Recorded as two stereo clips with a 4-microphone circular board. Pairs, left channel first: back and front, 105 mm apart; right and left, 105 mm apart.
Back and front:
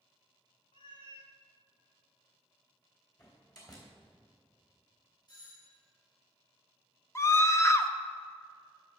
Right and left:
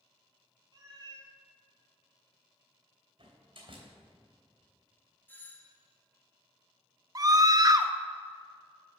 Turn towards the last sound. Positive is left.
turn(degrees=130)